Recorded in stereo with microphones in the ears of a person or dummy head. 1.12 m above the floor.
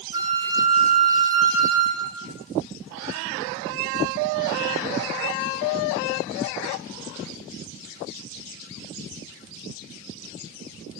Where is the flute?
20° right (ahead or behind), 1.3 m.